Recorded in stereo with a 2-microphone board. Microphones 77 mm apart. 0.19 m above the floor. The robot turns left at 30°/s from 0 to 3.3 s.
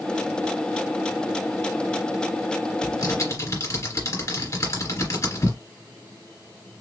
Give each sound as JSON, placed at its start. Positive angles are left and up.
{"t": 2.8, "sound": "typing on a keyboard", "side_deg": 55, "distance_m": 2.0}